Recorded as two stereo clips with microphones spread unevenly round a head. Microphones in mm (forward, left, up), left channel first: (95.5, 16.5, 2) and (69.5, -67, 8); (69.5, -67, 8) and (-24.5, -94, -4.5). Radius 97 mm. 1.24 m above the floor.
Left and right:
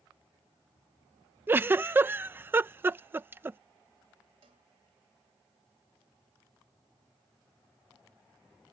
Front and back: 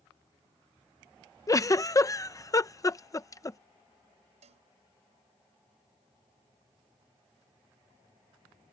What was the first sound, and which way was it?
A giggle, 40° right.